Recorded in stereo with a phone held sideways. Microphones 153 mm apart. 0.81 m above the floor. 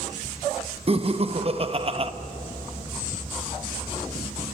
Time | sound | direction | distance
0.9 | laughter | 40° right (ahead or behind) | 0.9 m